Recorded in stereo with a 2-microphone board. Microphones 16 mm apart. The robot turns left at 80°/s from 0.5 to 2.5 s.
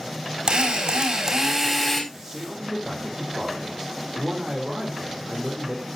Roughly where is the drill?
Right.